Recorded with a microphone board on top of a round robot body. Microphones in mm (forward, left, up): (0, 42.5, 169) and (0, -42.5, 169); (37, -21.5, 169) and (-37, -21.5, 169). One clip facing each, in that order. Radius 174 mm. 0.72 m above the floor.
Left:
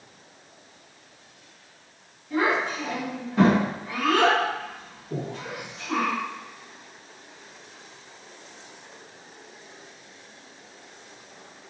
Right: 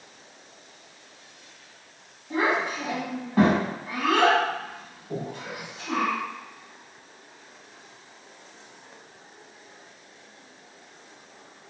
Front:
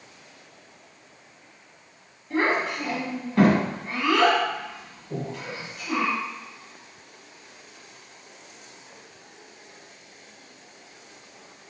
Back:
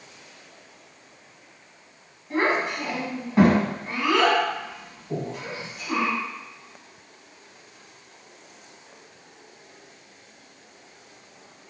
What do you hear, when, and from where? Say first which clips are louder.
2.3 s a child speaking: left 1 dB, even; 120° right, 1.5 m
5.1 s breathing: left 1 dB, back 2 dB; 120° right, 1.4 m